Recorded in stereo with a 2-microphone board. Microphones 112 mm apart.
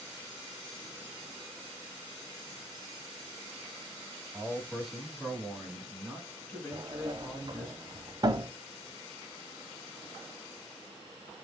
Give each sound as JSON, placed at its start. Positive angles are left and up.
{"t": 4.3, "sound": "a man speaking", "side_deg": -5, "distance_m": 1.6}
{"t": 6.7, "sound": "a sliding door", "side_deg": -40, "distance_m": 0.6}